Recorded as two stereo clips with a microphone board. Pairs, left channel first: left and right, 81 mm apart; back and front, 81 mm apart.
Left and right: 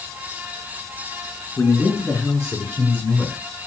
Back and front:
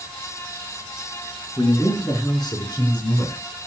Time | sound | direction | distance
1.6 | a man speaking | 140° left | 5.5 m